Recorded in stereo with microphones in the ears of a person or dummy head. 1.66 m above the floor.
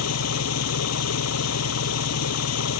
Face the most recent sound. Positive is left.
turn(degrees=85)